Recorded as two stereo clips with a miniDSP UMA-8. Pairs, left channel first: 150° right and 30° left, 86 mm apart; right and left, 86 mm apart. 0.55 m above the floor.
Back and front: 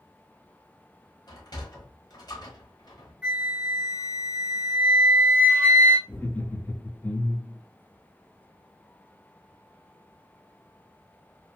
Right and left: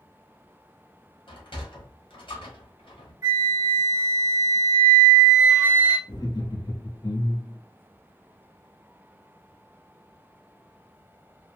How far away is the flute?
About 1.4 m.